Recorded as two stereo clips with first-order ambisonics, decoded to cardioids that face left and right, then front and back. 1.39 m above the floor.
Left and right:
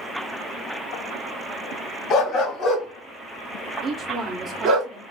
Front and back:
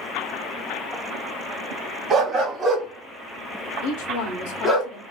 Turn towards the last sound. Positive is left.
turn(degrees=-10)